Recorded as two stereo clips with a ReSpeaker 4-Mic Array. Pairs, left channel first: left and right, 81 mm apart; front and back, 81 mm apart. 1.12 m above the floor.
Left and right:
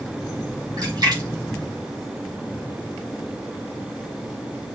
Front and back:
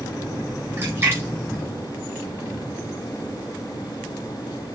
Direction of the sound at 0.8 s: 120° right.